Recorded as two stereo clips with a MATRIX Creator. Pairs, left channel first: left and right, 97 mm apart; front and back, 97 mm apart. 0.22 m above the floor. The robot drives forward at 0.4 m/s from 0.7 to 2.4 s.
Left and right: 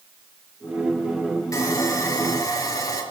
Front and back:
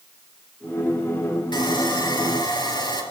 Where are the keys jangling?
No keys jangling in this recording.